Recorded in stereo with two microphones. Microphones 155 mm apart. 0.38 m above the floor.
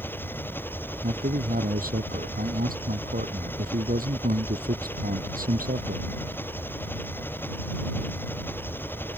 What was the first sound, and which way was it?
An engine running, 15° left (ahead or behind).